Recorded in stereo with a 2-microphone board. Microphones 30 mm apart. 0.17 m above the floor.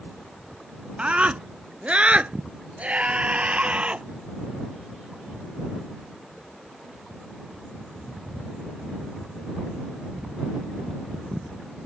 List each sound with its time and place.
1.0 s a scream: 40° right (ahead or behind); by 4.0 s 45° right (ahead or behind)